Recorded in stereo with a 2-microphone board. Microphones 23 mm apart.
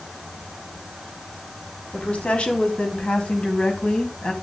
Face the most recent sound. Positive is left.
turn(degrees=50)  # may be behind; listen again after turning